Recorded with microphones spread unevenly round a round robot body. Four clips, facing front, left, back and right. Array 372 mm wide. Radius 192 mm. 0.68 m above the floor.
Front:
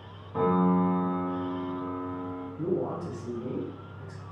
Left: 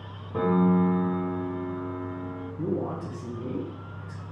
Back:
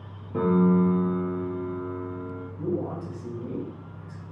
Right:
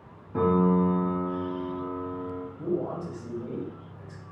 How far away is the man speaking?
About 1.6 m.